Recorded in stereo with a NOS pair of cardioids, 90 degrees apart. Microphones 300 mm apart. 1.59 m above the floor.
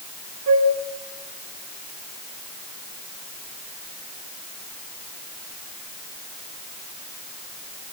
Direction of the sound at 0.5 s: 60° right.